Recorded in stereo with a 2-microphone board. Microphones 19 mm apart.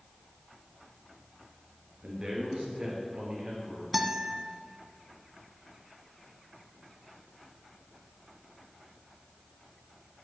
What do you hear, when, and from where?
2.0 s a man speaking: 55° right (ahead or behind), 3.5 m; by 3.8 s 45° right (ahead or behind), 4 m
3.9 s a guitar: 15° right (ahead or behind), 1.1 m